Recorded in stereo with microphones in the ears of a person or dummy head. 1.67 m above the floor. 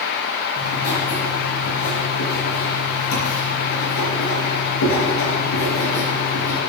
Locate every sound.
0.6 s writing: 70° left (ahead or behind), 4 m